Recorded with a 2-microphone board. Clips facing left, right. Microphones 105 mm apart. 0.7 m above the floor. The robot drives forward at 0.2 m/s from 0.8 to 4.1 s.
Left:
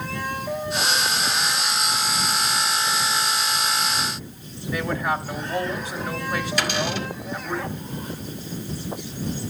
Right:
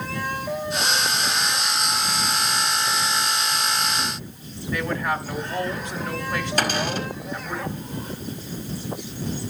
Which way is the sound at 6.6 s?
40° right (ahead or behind).